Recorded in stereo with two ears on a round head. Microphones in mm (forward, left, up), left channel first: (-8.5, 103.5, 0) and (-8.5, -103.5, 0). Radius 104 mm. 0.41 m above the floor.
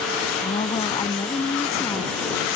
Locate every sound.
0.4 s a woman speaking: 25° left (ahead or behind); by 2.1 s 10° left (ahead or behind)